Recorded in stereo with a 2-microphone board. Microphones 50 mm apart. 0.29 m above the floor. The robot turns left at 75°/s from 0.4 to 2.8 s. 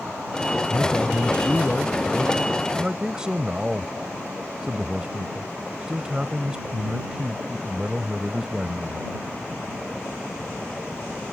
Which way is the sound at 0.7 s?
120° left.